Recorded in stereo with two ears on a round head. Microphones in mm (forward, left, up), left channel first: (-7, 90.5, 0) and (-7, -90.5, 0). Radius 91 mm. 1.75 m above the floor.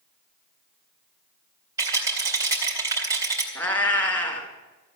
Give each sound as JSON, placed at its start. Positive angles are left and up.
{"t": 1.8, "sound": "a rattle", "side_deg": -15, "distance_m": 3.5}
{"t": 3.5, "sound": "a cat meowing", "side_deg": 10, "distance_m": 2.0}